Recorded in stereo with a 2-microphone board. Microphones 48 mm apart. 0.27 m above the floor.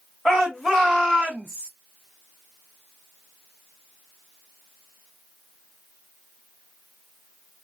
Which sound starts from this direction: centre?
A shout, at 0.2 s.